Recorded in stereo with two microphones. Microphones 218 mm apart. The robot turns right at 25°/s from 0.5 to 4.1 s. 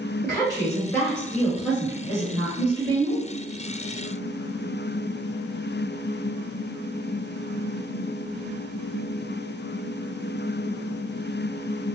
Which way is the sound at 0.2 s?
155° left.